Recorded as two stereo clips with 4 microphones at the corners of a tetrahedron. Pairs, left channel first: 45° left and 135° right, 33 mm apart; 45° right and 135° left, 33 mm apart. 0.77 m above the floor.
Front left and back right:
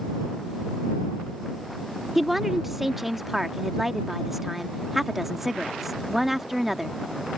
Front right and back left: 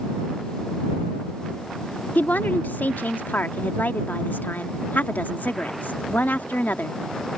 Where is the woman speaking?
50° right.